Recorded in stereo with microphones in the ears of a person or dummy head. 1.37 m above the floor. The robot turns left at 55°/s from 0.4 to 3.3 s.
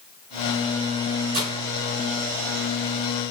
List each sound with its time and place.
1.3 s breaking glass: 45° right (ahead or behind), 5 m; by 1.6 s 35° right (ahead or behind), 5 m